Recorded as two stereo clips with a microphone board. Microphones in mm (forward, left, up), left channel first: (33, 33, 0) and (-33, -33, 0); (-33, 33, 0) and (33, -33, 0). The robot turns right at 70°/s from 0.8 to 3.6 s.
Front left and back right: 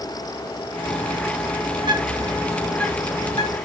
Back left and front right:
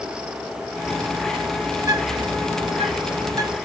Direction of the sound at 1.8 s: 110° right.